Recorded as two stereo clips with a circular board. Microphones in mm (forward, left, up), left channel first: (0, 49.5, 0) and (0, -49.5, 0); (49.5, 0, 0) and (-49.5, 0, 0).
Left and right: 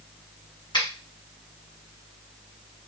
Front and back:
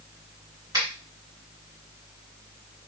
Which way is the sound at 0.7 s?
130° left.